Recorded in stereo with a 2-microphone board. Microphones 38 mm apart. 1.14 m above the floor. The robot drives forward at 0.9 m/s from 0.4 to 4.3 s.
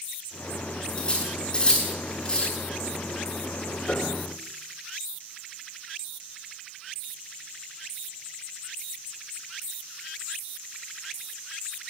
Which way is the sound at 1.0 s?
25° left (ahead or behind).